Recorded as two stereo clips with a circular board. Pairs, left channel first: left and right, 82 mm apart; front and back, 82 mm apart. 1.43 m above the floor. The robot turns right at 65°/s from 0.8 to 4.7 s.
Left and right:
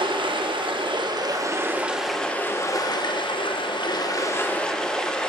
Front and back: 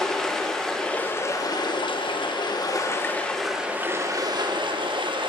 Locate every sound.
0.0 s running water: 85° right, 1.0 m; by 5.3 s 170° left, 1.0 m